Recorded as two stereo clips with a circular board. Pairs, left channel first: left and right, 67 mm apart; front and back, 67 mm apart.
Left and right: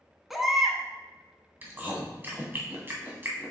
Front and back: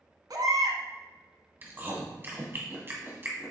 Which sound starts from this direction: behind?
A baby crying, at 0.3 s.